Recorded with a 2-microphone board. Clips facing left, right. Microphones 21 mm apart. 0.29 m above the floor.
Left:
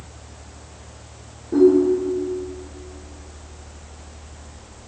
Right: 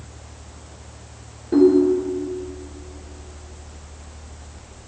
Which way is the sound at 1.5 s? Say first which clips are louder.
Even; 60° right (ahead or behind).